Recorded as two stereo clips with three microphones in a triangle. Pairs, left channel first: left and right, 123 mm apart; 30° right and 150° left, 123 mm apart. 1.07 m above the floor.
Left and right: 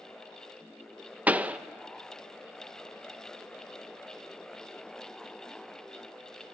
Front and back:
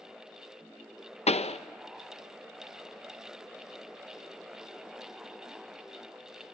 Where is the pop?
10° right, 0.5 m.